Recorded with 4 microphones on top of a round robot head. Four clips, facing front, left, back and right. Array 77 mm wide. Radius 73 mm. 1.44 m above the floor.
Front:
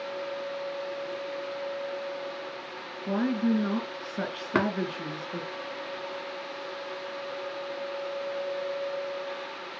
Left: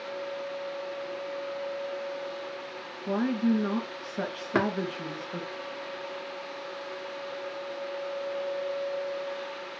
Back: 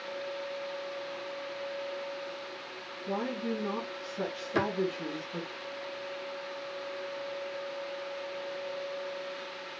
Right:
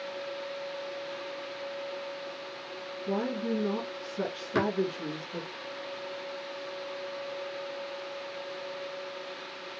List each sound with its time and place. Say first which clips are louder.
3.1 s a woman speaking: left 5 dB, front 7 dB; 40° left, 2 m
4.5 s tapping: left 2 dB, front 4 dB; 35° left, 1.5 m